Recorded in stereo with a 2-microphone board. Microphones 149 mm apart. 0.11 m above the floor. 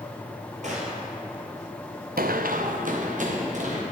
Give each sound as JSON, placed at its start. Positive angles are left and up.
{"t": 0.6, "sound": "a gunshot", "side_deg": -55, "distance_m": 1.7}
{"t": 2.2, "sound": "running footsteps", "side_deg": -85, "distance_m": 0.6}